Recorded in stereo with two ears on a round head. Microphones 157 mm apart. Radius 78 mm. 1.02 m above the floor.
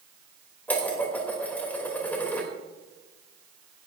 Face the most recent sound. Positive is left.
turn(degrees=10)  # may be behind; listen again after turning